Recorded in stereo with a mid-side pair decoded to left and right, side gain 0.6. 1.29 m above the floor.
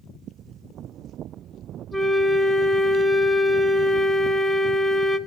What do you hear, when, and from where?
1.9 s a flute: 10° left, 1.0 m